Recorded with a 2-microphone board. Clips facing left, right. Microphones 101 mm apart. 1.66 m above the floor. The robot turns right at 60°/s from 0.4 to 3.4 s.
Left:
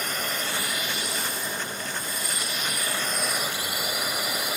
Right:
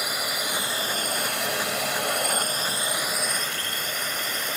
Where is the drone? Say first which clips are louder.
Right 1 dB; 170° right; by 4.6 s 10° left.